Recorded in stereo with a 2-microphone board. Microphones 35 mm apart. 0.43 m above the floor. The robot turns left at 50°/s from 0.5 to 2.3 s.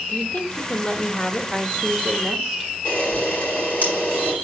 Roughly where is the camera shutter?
Left.